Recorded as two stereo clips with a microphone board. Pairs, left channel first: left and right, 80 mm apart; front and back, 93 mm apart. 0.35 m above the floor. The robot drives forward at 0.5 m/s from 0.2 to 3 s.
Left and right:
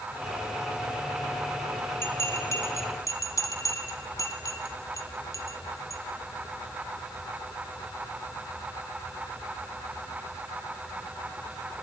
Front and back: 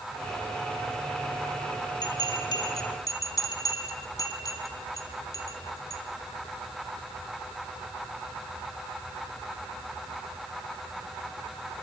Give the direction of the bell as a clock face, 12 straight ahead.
11 o'clock.